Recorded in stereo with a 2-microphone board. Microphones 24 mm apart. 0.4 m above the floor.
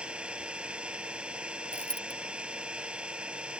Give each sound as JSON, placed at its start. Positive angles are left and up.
{"t": 0.0, "sound": "an engine running", "side_deg": -55}
{"t": 1.7, "sound": "a dropped coin", "side_deg": 75}